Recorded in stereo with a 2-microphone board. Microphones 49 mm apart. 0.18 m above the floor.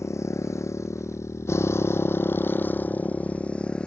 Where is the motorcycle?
80° left; by 3.9 s 20° left (ahead or behind).